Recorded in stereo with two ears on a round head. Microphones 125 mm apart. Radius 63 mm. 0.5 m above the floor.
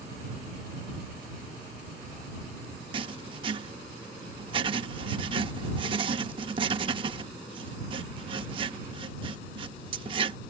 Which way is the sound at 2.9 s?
40° right (ahead or behind).